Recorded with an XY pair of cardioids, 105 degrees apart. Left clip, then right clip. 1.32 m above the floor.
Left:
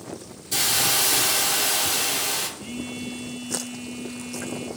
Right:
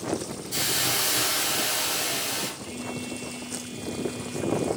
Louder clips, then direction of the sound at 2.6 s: Left 1 dB; 65° left.